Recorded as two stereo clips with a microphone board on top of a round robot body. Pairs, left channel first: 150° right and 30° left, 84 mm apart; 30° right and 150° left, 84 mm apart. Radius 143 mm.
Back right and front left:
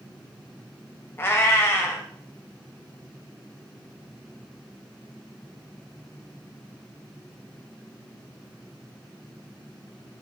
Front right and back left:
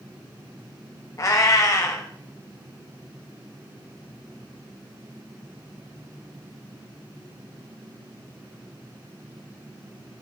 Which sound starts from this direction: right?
A cat meowing, at 1.2 s.